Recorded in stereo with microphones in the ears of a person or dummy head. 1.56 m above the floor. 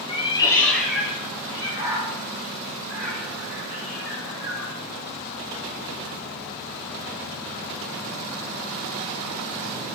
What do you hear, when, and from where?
0.1 s a cat meowing: 30° left (ahead or behind), 1.7 m; by 4.7 s 45° right (ahead or behind), 5.5 m